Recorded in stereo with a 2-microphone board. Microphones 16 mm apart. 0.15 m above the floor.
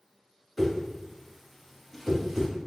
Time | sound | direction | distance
0.6 | a whoosh | 5° left (ahead or behind) | 1.5 m